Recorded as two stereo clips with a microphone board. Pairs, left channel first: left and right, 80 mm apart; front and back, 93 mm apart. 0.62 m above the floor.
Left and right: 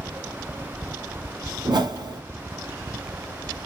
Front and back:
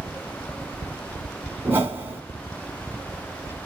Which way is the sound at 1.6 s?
115° right.